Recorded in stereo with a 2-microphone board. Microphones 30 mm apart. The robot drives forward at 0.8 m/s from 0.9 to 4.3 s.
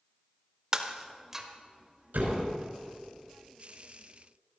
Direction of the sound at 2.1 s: 75° right (ahead or behind).